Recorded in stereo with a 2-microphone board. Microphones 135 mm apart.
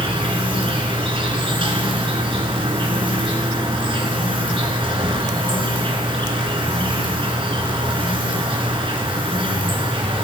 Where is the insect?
40° right (ahead or behind), 2 m.